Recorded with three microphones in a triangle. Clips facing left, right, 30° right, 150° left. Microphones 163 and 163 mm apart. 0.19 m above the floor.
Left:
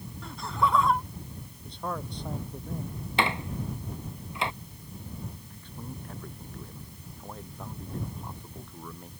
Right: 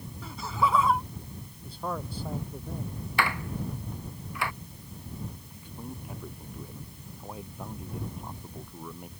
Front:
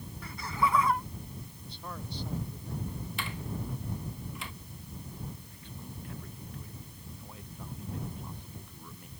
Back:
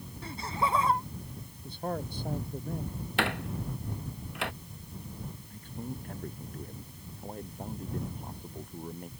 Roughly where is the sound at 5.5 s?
Behind.